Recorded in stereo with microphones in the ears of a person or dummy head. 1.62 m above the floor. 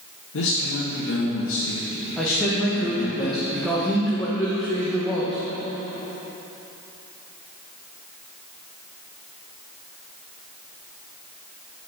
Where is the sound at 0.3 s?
70° left (ahead or behind), 1.7 m.